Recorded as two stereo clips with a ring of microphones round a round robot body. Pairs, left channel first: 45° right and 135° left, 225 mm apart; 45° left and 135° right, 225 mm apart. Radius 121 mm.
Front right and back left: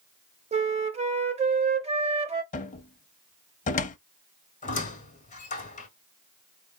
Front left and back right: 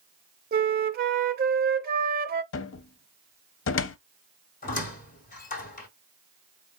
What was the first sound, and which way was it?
A flute, 170° right.